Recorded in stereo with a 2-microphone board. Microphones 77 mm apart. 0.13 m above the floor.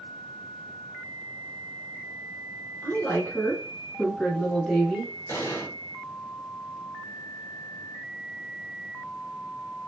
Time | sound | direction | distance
2.8 | a woman speaking | 30° left (ahead or behind) | 1.9 m
5.3 | an explosion | 40° left (ahead or behind) | 1.7 m